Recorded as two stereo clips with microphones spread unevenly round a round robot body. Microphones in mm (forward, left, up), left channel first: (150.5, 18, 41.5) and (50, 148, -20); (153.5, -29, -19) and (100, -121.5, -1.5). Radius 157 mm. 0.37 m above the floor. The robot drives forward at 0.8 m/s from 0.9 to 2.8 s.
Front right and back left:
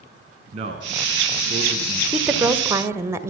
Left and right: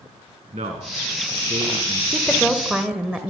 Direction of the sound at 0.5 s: 175° right.